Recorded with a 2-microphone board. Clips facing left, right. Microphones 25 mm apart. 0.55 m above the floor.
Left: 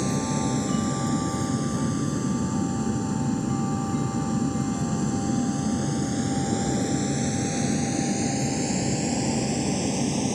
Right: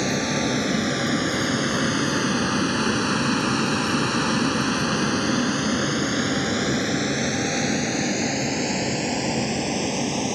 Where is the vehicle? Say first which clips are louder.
Right 3 dB; 45° right (ahead or behind); by 10.4 s 25° right (ahead or behind).